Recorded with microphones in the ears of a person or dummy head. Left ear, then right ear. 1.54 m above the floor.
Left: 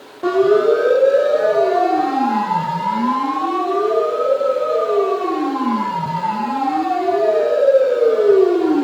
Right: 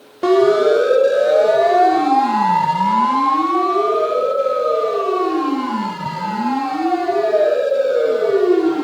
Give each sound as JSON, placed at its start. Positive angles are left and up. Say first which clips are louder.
{"t": 0.2, "sound": "a siren", "louder": "right 1 dB", "side_deg": -85, "distance_m": 3.0}